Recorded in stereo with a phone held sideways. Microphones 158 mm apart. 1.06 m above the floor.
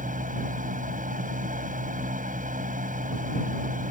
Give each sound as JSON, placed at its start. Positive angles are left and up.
{"t": 0.0, "sound": "a fan", "side_deg": -60}